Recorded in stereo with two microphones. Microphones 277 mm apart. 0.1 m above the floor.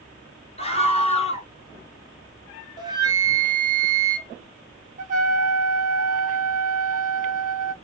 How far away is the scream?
About 1.1 m.